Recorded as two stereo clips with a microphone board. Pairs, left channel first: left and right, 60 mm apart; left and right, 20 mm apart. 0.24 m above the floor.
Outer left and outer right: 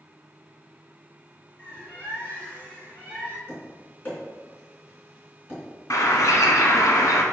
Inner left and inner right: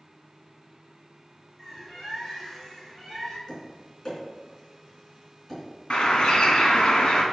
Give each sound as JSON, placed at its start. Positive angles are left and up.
{"t": 1.6, "sound": "a bird", "side_deg": 20, "distance_m": 2.5}
{"t": 3.5, "sound": "tapping", "side_deg": 30, "distance_m": 3.0}
{"t": 5.9, "sound": "a bird", "side_deg": 60, "distance_m": 1.3}